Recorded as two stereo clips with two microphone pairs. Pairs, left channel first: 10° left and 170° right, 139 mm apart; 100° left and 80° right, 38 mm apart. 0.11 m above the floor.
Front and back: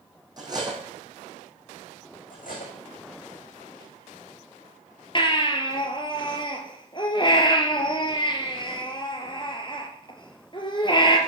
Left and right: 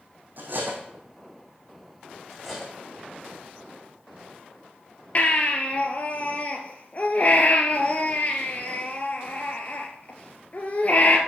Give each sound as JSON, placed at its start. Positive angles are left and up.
{"t": 0.4, "sound": "cutlery clinking", "azimuth_deg": -110, "distance_m": 3.0}
{"t": 2.3, "sound": "cutlery clinking", "azimuth_deg": 10, "distance_m": 6.0}
{"t": 5.2, "sound": "a baby crying", "azimuth_deg": 60, "distance_m": 1.8}